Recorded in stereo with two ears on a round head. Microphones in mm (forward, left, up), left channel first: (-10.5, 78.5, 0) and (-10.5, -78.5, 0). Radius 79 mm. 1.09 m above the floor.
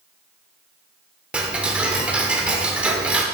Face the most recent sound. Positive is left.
turn(degrees=-5)  # may be behind; listen again after turning